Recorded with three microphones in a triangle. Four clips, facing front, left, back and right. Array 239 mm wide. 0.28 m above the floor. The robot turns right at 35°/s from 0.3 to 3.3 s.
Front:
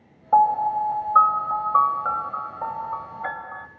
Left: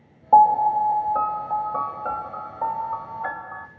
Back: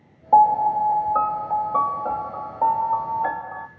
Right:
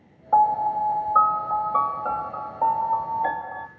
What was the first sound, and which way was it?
A piano, 120° left.